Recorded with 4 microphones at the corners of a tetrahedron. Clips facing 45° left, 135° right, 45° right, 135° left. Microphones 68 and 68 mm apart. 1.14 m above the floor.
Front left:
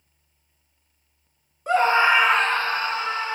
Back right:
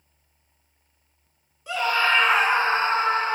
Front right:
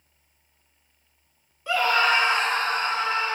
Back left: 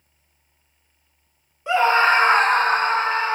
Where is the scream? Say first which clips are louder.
Front left 5 dB, back left 5 dB; 75° left, 0.5 m; by 3.4 s straight behind, 0.9 m.